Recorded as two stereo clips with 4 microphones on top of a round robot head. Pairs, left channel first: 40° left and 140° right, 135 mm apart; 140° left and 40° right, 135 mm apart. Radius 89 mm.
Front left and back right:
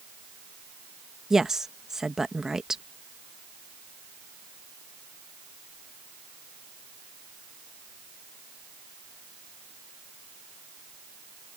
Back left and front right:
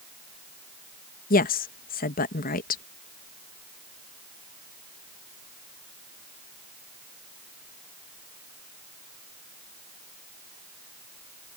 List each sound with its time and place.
1.3 s a woman speaking: 135° left